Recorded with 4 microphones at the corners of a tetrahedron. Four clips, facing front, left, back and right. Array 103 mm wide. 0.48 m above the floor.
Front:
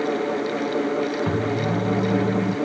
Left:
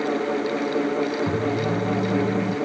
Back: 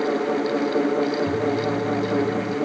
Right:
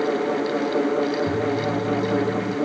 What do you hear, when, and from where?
1.3 s a microwave: 30° left